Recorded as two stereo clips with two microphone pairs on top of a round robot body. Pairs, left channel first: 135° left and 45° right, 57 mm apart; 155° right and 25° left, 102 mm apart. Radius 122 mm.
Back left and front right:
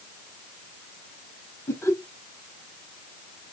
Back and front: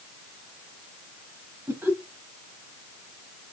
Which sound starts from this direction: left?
Laughter, at 1.7 s.